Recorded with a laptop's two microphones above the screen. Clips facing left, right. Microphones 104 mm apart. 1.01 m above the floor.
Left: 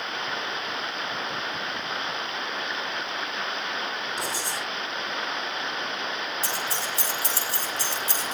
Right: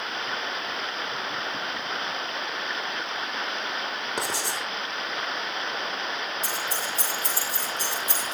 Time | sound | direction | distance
4.2 | writing | 70° right (ahead or behind) | 4 m
6.4 | keys jangling | 75° left (ahead or behind) | 3 m